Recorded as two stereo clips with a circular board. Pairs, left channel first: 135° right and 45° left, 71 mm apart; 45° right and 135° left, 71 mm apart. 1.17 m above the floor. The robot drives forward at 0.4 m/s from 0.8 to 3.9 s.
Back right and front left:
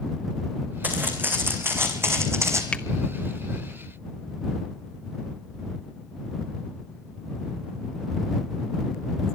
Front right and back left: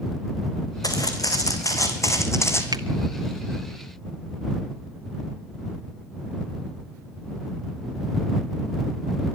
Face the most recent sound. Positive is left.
turn(degrees=155)